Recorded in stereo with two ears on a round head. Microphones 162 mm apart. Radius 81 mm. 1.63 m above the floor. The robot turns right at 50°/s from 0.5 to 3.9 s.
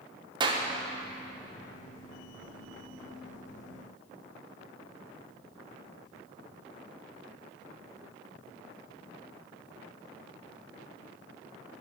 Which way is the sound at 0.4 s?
25° right (ahead or behind).